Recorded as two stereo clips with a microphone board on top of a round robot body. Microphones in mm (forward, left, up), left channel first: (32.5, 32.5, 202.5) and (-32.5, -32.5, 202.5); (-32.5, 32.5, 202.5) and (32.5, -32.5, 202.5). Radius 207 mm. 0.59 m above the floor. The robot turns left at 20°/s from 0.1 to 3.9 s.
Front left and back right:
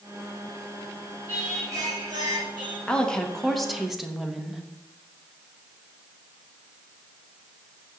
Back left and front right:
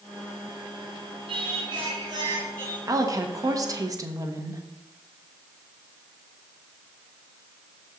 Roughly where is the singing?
Right.